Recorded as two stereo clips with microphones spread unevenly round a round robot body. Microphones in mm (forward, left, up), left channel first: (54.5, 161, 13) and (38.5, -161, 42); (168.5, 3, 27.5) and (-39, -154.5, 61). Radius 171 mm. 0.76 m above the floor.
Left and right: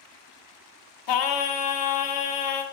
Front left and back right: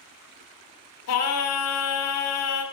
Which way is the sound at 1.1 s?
70° left.